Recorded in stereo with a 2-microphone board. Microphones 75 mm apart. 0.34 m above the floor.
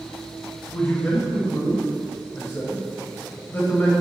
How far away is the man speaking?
About 1.2 m.